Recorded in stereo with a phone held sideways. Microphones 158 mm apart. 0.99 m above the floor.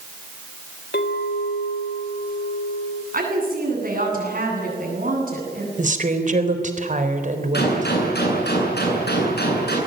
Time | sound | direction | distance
0.9 | a clink | 80° left | 3 m
3.1 | a woman speaking | 55° right (ahead or behind) | 9.5 m
5.8 | a woman speaking | 50° right (ahead or behind) | 3.5 m
7.5 | a gunshot | 80° left | 9 m